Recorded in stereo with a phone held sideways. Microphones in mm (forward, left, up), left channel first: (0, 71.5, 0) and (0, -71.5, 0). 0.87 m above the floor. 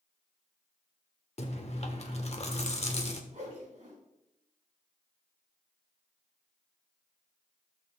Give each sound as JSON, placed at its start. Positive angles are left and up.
{"t": 1.4, "sound": "chewing", "side_deg": 50, "distance_m": 1.1}
{"t": 3.3, "sound": "a whoosh", "side_deg": -55, "distance_m": 5.0}